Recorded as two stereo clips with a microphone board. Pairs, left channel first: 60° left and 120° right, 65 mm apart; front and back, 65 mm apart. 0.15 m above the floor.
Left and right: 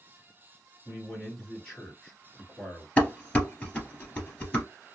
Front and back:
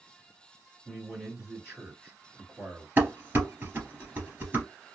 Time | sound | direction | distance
0.8 | a man speaking | 120° left | 2.5 m
3.0 | dishes clattering | 125° left | 2.0 m